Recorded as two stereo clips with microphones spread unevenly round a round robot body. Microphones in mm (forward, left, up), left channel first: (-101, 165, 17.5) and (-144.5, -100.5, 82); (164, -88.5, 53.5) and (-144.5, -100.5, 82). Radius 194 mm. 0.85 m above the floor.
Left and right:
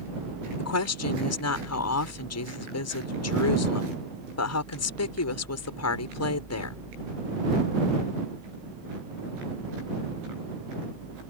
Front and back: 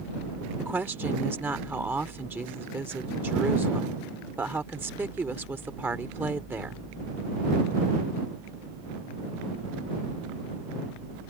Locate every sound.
0.6 s a woman speaking: 95° left